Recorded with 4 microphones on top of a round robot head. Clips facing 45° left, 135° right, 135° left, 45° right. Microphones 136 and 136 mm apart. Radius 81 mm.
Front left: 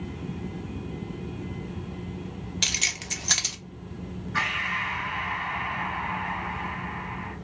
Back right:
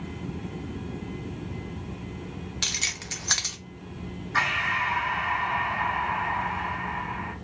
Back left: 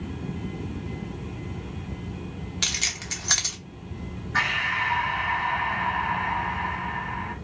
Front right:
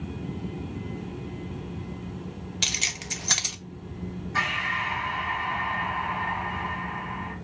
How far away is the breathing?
About 1.9 m.